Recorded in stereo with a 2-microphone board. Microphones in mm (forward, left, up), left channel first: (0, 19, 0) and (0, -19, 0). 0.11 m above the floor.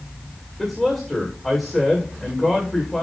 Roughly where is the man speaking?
Centre.